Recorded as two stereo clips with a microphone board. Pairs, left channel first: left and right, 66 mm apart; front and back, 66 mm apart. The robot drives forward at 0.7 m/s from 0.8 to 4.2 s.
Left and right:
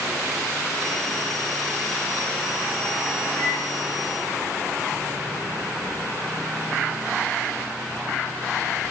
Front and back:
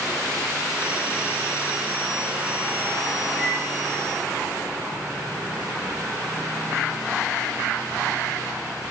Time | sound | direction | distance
3.4 | a microwave | 125° left | 6 m